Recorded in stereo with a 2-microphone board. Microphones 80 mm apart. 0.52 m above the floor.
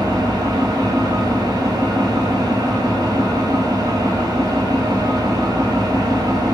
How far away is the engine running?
About 0.7 m.